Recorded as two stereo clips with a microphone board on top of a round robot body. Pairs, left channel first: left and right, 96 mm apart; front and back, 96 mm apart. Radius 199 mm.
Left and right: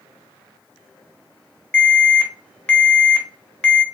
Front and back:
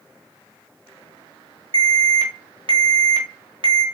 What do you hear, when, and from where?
1.7 s an alarm: 165° left, 0.9 m